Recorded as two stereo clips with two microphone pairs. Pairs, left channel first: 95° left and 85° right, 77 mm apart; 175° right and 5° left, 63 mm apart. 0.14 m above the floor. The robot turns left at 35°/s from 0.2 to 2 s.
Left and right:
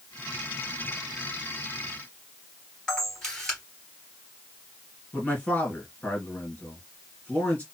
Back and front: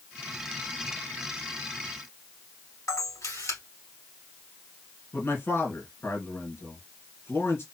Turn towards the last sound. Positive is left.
turn(degrees=165)